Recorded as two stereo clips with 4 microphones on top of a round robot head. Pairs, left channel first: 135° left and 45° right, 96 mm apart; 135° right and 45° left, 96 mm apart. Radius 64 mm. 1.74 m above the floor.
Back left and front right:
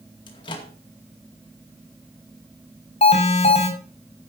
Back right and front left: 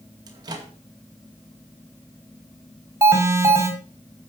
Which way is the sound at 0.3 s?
95° left.